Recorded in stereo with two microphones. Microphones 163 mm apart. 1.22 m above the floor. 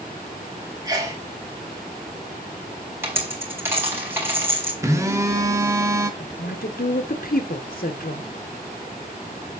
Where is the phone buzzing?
20° right (ahead or behind), 1.2 m.